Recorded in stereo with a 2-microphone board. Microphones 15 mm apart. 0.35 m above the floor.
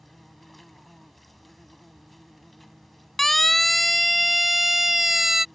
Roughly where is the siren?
Left.